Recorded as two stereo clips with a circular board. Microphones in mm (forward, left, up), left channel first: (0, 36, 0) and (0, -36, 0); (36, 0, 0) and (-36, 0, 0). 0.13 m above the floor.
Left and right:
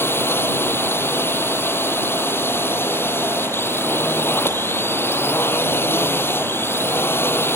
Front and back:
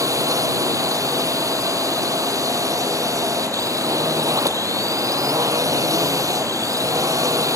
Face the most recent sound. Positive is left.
turn(degrees=145)